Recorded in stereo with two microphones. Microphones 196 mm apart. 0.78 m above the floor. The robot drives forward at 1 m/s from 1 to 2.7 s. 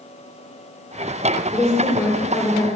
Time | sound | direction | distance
1.5 | a woman speaking | 5° left (ahead or behind) | 3.5 m